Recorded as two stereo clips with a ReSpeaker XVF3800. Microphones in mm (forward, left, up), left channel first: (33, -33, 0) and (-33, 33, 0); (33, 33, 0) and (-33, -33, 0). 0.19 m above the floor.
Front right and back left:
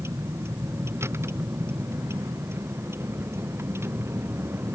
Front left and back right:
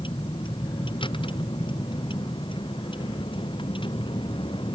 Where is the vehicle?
75° left; by 4.8 s 70° left.